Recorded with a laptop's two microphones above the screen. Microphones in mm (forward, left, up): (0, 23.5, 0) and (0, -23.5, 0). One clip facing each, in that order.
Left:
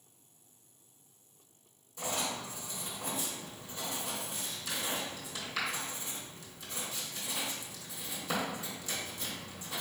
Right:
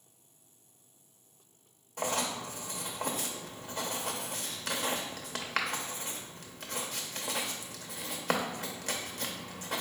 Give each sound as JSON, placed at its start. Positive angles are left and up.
{"t": 2.0, "sound": "writing", "side_deg": -50, "distance_m": 0.7}